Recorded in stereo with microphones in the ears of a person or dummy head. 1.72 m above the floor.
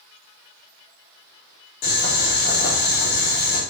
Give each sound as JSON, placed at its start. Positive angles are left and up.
{"t": 1.8, "sound": "boiling", "side_deg": 45, "distance_m": 5.5}